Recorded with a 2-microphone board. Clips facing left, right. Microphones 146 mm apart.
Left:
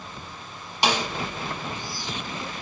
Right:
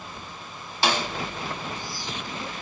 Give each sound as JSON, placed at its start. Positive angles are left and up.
{"t": 0.8, "sound": "a snare drum", "side_deg": 15, "distance_m": 0.7}